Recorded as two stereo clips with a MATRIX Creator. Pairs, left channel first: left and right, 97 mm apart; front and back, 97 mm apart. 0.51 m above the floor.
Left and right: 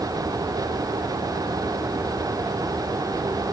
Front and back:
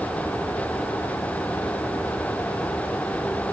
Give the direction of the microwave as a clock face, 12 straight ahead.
No microwave in this recording.